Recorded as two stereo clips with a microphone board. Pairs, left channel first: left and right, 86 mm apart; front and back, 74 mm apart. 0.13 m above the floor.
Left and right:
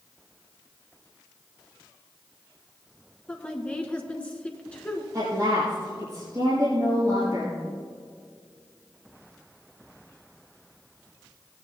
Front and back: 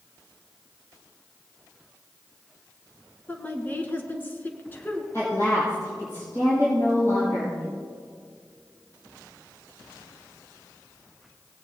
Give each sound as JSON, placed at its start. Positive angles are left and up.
{"t": 3.3, "sound": "a woman speaking", "azimuth_deg": 30, "distance_m": 1.4}
{"t": 5.1, "sound": "a woman speaking", "azimuth_deg": -45, "distance_m": 4.5}